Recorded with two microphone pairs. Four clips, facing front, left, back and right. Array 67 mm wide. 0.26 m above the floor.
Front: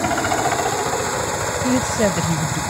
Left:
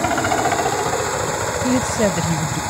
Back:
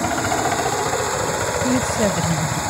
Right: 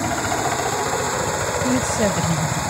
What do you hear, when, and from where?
0.0 s a helicopter: 60° left; by 2.7 s 145° right
1.6 s a woman speaking: 50° left